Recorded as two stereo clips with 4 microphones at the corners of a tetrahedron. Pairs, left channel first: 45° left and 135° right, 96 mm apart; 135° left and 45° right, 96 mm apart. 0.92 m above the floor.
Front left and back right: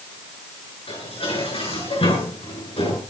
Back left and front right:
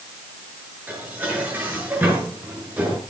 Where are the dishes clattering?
25° left, 8 m.